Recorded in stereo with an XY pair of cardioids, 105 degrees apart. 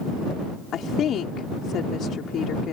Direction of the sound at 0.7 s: 65° left.